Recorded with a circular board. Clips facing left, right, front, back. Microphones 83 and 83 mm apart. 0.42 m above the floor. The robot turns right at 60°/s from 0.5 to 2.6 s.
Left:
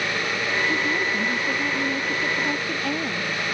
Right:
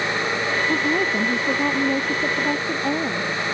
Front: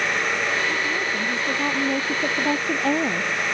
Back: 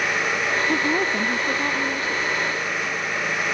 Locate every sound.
0.7 s a woman speaking: 135° right; by 3.4 s 20° right